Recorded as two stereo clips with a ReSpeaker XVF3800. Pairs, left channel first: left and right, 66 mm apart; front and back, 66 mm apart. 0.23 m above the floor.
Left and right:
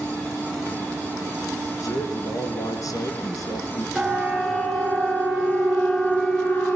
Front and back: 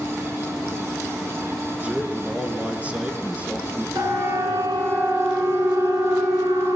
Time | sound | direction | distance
1.8 | a man speaking | 110° left | 3.5 m
4.0 | a siren | 175° right | 4 m